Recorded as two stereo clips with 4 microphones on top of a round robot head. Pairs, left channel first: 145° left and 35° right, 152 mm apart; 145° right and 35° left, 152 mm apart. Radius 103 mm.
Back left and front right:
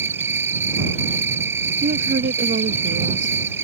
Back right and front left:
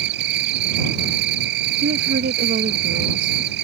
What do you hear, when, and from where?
0.0 s an insect: 40° left
1.8 s a woman speaking: straight ahead